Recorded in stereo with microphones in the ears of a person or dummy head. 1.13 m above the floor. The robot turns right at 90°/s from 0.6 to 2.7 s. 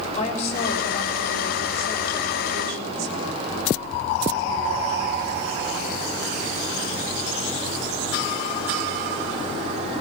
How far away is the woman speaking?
About 6 m.